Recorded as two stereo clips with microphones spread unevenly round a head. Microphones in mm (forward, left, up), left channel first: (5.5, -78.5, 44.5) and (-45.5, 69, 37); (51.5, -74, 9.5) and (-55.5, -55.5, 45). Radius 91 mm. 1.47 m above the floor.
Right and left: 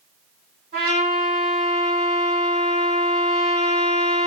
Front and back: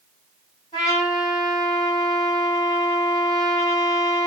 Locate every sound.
0.7 s a trumpet: 60° left, 1.6 m